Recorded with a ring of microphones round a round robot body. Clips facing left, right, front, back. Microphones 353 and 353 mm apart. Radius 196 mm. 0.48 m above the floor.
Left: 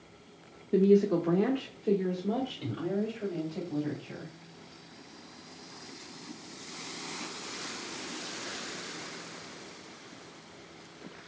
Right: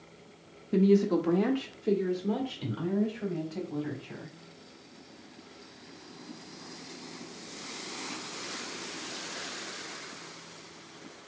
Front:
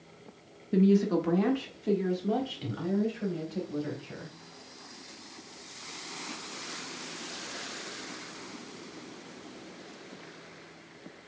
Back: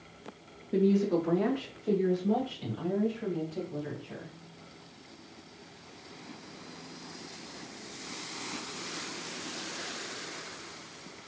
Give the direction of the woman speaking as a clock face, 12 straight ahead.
1 o'clock.